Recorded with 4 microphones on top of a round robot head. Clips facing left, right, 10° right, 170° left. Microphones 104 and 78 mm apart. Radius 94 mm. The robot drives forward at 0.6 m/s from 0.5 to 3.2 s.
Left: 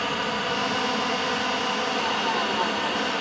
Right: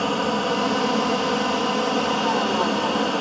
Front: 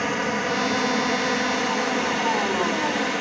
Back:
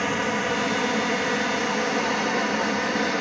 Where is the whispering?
No whispering in this recording.